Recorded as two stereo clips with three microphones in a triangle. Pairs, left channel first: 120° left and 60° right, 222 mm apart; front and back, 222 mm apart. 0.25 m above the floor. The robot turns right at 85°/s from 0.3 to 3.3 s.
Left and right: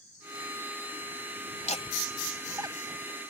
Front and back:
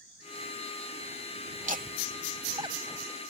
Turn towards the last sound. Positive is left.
turn(degrees=-65)